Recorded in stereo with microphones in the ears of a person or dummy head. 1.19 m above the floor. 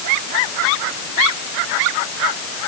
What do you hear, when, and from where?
Only background noise.